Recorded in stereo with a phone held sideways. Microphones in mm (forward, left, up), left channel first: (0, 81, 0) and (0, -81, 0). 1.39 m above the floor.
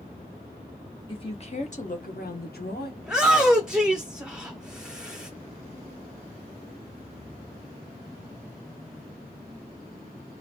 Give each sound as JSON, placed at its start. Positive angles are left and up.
{"t": 1.1, "sound": "a woman speaking", "side_deg": 30, "distance_m": 1.2}
{"t": 3.0, "sound": "a shout", "side_deg": -5, "distance_m": 0.6}